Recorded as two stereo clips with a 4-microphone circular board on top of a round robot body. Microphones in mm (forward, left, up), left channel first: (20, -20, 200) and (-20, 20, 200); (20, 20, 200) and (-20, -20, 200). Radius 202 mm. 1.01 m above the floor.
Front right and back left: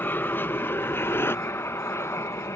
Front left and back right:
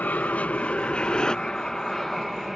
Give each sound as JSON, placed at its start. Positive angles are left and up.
{"t": 0.0, "sound": "an aircraft", "azimuth_deg": -5}